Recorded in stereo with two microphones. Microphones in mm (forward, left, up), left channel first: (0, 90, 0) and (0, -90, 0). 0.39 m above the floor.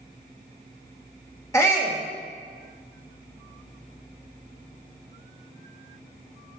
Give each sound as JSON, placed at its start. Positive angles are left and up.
{"t": 1.5, "sound": "a shout", "side_deg": 15, "distance_m": 1.0}